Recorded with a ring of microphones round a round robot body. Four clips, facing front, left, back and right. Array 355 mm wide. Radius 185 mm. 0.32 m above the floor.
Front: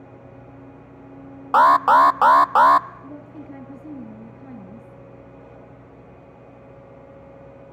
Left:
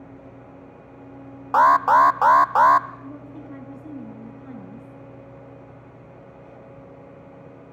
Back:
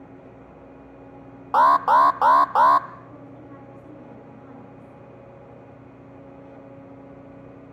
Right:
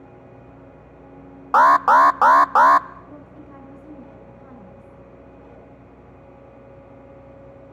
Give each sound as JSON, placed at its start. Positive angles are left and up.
{"t": 1.5, "sound": "an alarm", "azimuth_deg": -55, "distance_m": 0.5}
{"t": 3.0, "sound": "a woman speaking", "azimuth_deg": 40, "distance_m": 3.0}